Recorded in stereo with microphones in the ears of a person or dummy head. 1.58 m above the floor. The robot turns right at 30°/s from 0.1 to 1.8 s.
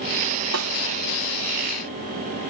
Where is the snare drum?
90° right; by 0.7 s 85° right.